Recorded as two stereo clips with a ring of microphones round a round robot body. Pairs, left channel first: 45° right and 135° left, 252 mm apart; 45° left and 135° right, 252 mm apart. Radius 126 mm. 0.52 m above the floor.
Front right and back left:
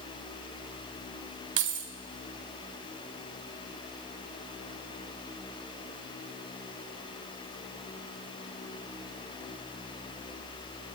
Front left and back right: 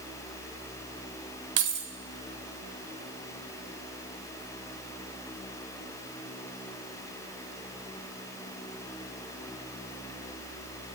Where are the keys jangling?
Straight behind, 1.4 m.